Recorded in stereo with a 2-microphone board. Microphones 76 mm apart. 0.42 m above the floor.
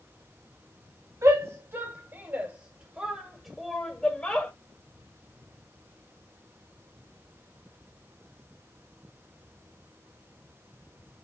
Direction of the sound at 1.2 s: 45° right (ahead or behind).